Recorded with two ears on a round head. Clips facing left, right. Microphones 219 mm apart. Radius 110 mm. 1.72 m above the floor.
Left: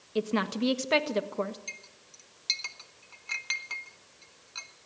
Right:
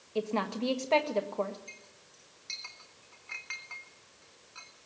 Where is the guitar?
No guitar in this recording.